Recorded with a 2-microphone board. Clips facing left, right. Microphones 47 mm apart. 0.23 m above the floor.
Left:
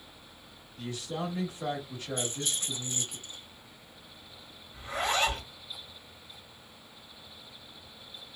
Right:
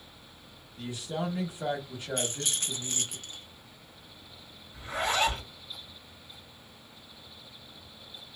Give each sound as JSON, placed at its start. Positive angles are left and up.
{"t": 0.8, "sound": "a man speaking", "side_deg": -20, "distance_m": 1.0}
{"t": 2.2, "sound": "a rattle", "side_deg": -70, "distance_m": 0.6}
{"t": 4.7, "sound": "a zipper", "side_deg": -5, "distance_m": 1.7}